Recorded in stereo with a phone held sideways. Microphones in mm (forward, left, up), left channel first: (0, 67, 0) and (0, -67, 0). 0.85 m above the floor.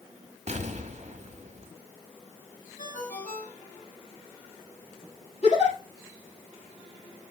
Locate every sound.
0.5 s an explosion: 60° right (ahead or behind), 1.3 m
2.8 s a ringtone: 85° left, 3 m
5.4 s a giggle: 50° left (ahead or behind), 5.5 m